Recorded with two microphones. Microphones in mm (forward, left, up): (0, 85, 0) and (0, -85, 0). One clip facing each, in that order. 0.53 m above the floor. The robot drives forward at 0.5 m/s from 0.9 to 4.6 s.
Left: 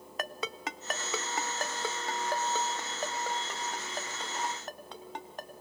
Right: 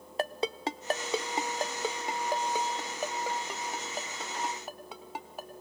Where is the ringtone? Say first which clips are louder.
Right 6 dB; 30° right (ahead or behind), 0.6 m; by 5.5 s 5° right (ahead or behind), 2 m.